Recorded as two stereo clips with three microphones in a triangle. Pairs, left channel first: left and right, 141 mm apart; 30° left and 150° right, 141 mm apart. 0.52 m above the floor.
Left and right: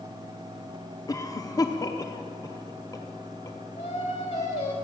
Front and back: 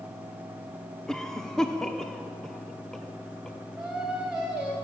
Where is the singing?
125° left, 3 m.